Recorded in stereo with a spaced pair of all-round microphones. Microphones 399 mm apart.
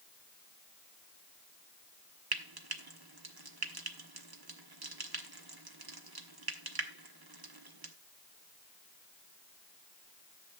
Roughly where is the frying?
Right.